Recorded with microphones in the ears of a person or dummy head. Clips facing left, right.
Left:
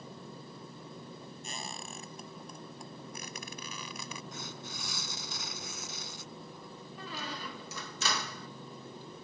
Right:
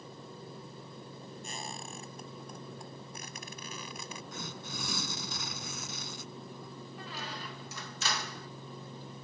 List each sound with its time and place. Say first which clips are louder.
1.4 s a squeak: right 1 dB; 60° left (ahead or behind)
4.3 s tearing paper: right 2 dB; 50° right (ahead or behind)
7.0 s a squeak: left 3 dB; 70° left (ahead or behind)